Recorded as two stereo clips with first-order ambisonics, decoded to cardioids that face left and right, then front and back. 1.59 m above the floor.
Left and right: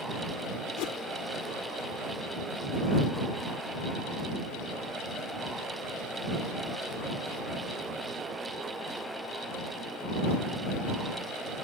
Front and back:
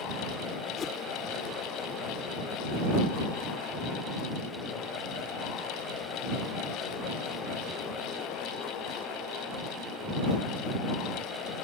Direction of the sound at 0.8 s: 65° left.